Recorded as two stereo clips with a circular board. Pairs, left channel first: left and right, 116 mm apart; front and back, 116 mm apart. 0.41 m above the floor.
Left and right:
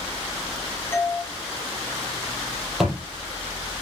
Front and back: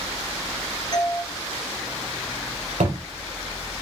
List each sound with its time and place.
0.9 s a doorbell: 30° left, 1.9 m
2.8 s a thud: 175° right, 6 m